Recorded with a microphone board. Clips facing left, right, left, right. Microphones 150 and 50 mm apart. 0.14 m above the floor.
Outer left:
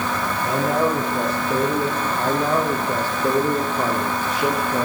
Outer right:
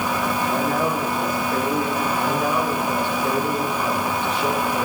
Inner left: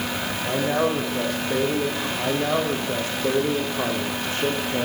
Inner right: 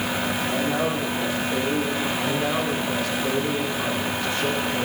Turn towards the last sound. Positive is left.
turn(degrees=40)  # may be behind; listen again after turning